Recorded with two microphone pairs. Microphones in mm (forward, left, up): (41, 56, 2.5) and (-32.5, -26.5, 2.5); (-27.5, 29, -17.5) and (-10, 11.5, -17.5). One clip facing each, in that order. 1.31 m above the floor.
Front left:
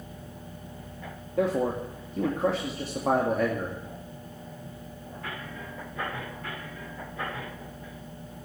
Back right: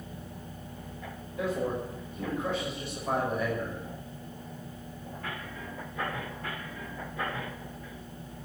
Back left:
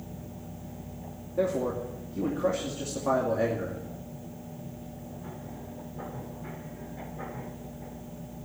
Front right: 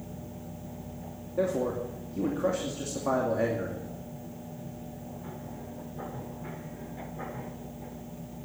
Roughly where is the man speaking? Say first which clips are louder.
Front left 5 dB, even; ahead left.